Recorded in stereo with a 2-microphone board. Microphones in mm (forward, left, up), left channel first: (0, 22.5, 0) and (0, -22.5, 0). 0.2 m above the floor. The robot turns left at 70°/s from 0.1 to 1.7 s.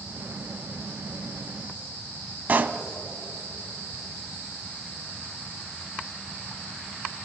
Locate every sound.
2.5 s a pop: 40° right (ahead or behind), 0.6 m